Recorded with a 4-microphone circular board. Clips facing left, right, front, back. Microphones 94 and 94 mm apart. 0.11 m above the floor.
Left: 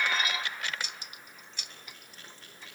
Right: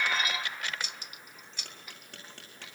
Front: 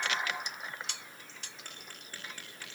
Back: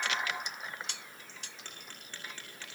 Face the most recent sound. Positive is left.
turn(degrees=-80)